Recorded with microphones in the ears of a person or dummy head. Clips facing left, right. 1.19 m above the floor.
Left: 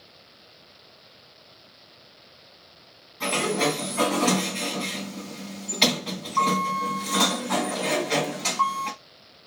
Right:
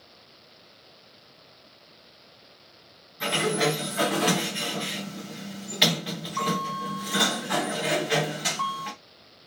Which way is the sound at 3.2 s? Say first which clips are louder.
Left 1 dB; 10° right (ahead or behind).